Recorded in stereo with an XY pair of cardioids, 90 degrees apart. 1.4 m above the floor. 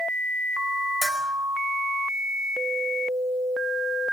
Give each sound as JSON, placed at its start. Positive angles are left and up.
{"t": 1.0, "sound": "a bell", "azimuth_deg": 0, "distance_m": 4.5}